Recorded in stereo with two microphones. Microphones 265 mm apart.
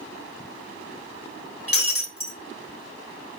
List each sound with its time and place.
1.7 s breaking glass: 55° left (ahead or behind), 0.8 m